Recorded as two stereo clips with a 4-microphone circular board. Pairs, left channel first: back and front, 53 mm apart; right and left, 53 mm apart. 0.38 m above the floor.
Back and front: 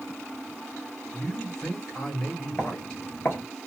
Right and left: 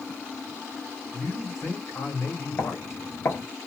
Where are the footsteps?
135° right, 3.5 m.